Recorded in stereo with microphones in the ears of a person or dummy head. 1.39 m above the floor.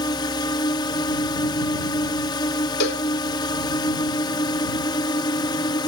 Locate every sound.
0.0 s a drone: 25° left (ahead or behind)
2.8 s a cowbell: 60° left (ahead or behind)